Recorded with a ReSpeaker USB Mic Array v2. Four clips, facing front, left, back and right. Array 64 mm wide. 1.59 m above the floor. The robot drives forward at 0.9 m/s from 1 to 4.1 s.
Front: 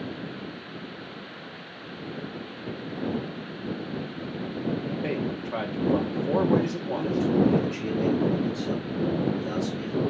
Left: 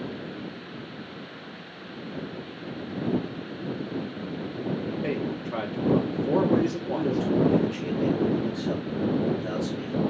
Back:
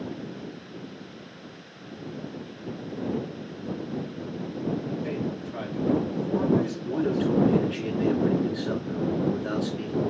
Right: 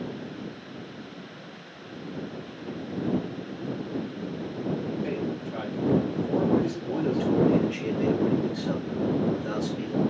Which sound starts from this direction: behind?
A man speaking, at 6.8 s.